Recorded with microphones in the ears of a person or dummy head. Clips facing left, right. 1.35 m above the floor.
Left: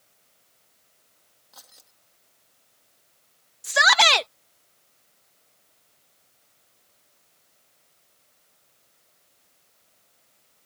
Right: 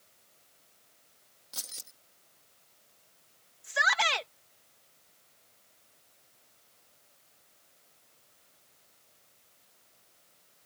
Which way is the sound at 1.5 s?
35° right (ahead or behind).